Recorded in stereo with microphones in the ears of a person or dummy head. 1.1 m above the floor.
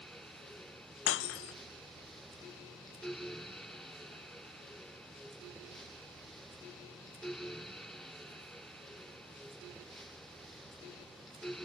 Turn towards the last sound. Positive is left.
turn(degrees=70)  # may be behind; listen again after turning